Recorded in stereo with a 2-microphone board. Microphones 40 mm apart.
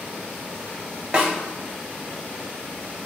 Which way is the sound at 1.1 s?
25° right (ahead or behind).